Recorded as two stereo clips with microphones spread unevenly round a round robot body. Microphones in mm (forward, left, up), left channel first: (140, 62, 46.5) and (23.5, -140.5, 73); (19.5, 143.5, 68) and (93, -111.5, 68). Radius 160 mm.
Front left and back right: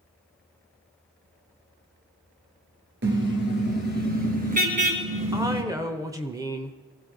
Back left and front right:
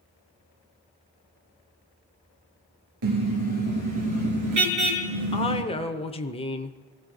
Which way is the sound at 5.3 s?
165° left.